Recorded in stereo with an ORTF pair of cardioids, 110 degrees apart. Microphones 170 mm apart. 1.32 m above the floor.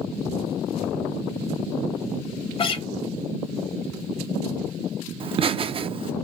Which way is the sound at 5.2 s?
35° right.